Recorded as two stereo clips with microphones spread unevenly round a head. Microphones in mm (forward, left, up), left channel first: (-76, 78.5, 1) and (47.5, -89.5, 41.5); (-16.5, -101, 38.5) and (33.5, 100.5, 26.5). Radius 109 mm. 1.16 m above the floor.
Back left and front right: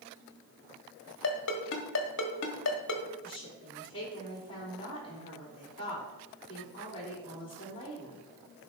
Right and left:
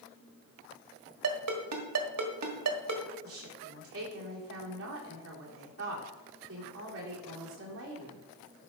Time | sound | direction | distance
1.2 | a ringtone | 85° left | 1.5 m
3.2 | a woman speaking | 60° left | 3.5 m